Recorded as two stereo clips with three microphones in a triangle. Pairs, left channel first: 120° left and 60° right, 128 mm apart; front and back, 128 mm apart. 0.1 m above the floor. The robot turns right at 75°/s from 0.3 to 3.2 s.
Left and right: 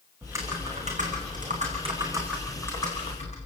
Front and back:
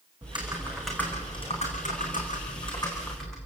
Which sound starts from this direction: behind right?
Typing on a keyboard, at 0.2 s.